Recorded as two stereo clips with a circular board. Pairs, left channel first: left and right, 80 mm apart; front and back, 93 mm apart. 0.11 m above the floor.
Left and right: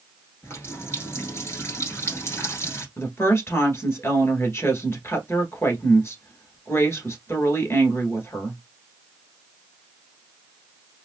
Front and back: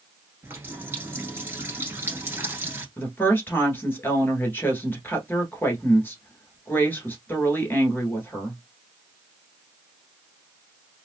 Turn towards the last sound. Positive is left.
turn(degrees=55)